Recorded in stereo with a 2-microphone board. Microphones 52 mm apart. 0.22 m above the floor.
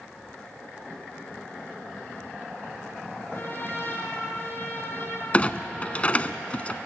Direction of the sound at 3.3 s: 40° left (ahead or behind).